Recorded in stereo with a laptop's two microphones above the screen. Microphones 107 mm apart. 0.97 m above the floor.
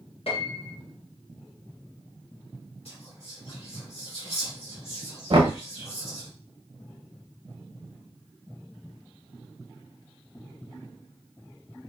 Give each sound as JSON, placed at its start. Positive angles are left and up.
{"t": 0.3, "sound": "a piano", "side_deg": 65, "distance_m": 0.9}
{"t": 2.9, "sound": "whispering", "side_deg": 70, "distance_m": 1.9}
{"t": 5.3, "sound": "knocking", "side_deg": -55, "distance_m": 0.9}